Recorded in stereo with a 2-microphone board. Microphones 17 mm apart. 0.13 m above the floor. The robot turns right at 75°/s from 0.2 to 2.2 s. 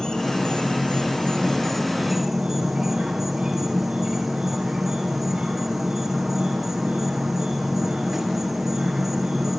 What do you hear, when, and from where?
0.0 s an insect: 40° left, 4.5 m; by 9.6 s 170° right, 4.5 m